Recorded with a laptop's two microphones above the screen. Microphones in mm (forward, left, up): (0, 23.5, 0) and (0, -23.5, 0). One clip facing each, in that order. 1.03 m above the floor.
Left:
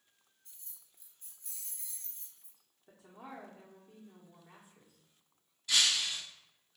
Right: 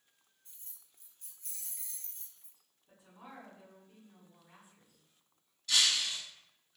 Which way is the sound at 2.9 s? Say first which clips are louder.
Left 4 dB; 60° left (ahead or behind).